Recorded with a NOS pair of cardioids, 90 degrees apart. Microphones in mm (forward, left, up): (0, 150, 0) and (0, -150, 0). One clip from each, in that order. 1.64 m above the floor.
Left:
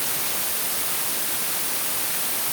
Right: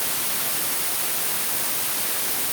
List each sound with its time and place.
Only background noise.